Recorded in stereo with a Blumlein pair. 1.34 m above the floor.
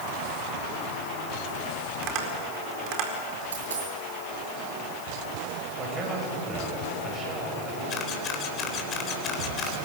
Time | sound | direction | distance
2.0 | tapping | 40° right | 4.5 m
3.5 | a dropped coin | 65° right | 8 m
5.8 | a man speaking | 25° right | 8 m
7.9 | a camera shutter | 30° left | 3.5 m